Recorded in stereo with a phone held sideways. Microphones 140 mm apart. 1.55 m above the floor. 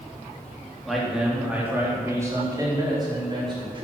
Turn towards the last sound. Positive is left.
turn(degrees=-35)  # may be behind; listen again after turning